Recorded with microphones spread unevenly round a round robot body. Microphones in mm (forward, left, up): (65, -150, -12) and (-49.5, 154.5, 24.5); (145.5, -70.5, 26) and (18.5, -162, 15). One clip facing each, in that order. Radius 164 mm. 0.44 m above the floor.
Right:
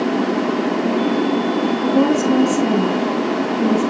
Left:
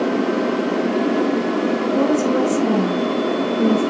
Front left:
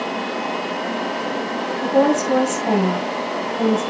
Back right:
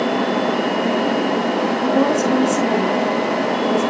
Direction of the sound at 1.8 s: 5° right.